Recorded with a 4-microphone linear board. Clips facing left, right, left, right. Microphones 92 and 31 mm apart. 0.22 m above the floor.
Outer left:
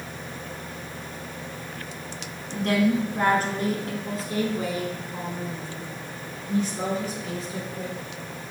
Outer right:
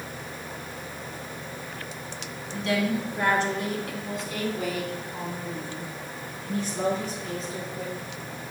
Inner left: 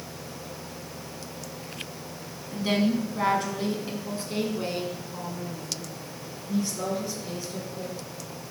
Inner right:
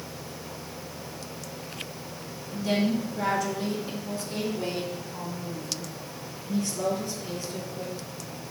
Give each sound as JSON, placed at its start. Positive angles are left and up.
{"t": 2.5, "sound": "a woman speaking", "side_deg": 50, "distance_m": 1.6}